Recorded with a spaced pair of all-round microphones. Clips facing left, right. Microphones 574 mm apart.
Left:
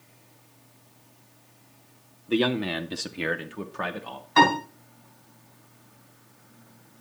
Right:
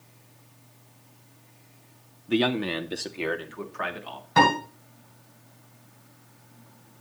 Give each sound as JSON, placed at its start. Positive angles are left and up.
{"t": 2.3, "sound": "a man speaking", "side_deg": -15, "distance_m": 0.7}
{"t": 4.4, "sound": "a piano", "side_deg": -60, "distance_m": 6.5}